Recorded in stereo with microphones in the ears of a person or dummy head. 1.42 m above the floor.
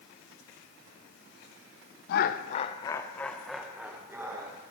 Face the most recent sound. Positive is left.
turn(degrees=-15)  # may be behind; listen again after turning